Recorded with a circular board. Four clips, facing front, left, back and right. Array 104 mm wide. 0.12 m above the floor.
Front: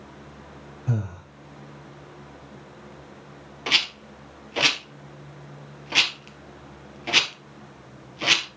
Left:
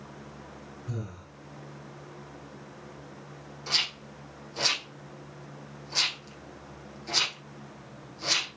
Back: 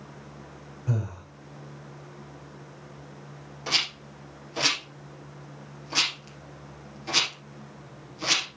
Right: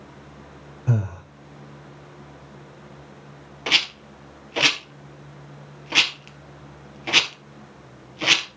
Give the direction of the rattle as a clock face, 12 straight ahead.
2 o'clock.